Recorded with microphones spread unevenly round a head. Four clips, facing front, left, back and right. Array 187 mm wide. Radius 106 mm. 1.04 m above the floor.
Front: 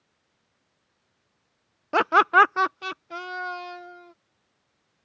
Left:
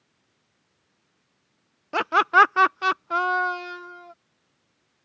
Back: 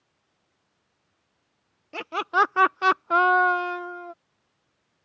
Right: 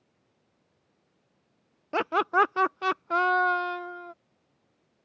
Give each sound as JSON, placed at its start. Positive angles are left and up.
{"t": 1.9, "sound": "laughter", "azimuth_deg": 0}